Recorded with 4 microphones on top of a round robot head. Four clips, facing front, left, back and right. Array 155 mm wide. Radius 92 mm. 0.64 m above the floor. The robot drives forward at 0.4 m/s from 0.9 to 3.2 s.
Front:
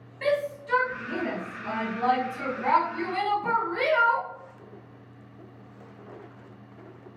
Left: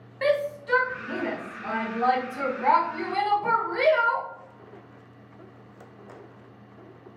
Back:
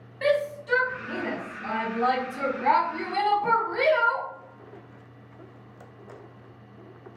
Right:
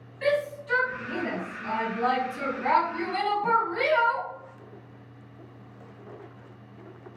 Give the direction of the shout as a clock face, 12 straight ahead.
9 o'clock.